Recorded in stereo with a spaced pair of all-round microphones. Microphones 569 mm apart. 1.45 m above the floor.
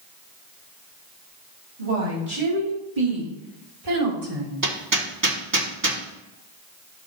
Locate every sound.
1.8 s a woman speaking: 75° right (ahead or behind), 4 m; by 4.5 s 60° right (ahead or behind), 3 m
4.6 s hammering: 35° right (ahead or behind), 1.2 m